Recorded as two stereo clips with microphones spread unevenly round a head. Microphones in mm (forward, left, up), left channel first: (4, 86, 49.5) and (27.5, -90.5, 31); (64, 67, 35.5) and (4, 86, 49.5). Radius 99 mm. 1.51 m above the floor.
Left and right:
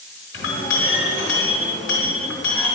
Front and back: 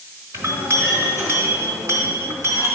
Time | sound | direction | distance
0.3 | a clink | 130° left | 3.5 m